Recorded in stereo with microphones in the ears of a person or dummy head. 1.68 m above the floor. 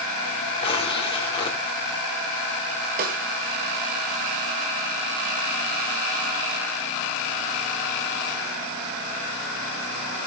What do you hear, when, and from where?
0.6 s tearing paper: 25° left (ahead or behind), 2.5 m
3.0 s a snare drum: 45° right (ahead or behind), 3 m